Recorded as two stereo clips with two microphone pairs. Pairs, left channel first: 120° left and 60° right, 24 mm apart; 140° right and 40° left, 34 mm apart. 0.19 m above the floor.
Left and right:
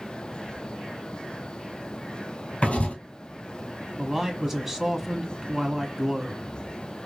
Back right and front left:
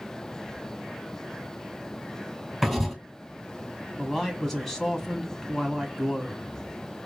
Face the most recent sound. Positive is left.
turn(degrees=-80)